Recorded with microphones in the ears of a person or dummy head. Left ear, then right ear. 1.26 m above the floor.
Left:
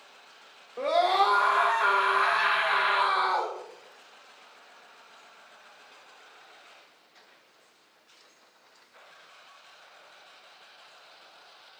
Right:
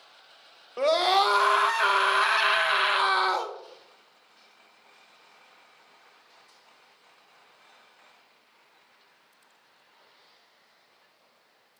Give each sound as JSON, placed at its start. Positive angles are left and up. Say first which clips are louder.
{"t": 0.8, "sound": "a scream", "louder": "right 1 dB", "side_deg": -75, "distance_m": 0.9}